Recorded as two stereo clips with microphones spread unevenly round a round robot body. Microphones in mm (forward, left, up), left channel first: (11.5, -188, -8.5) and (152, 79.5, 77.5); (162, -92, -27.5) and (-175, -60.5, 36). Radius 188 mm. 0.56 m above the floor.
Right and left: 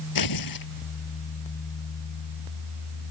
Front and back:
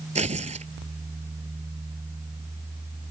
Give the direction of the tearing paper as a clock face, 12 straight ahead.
4 o'clock.